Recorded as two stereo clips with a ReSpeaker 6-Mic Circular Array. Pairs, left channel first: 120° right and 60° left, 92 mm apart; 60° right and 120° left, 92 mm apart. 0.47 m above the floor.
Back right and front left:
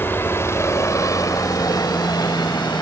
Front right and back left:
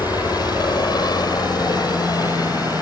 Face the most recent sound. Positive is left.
turn(degrees=-100)